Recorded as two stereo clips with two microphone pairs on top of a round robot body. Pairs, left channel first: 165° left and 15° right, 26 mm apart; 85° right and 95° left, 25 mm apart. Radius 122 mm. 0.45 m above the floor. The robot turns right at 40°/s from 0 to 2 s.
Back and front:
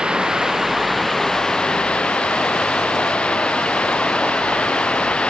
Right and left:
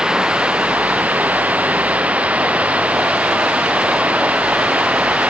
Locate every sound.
0.0 s running water: 40° left; by 5.3 s 120° left